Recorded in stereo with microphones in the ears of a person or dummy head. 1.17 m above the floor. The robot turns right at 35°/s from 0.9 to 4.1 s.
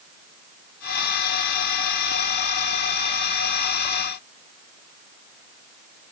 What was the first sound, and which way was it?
Only background noise.